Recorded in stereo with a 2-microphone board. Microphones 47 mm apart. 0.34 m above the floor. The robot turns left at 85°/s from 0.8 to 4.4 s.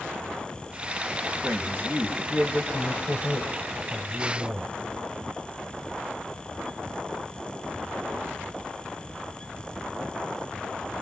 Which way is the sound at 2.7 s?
115° left.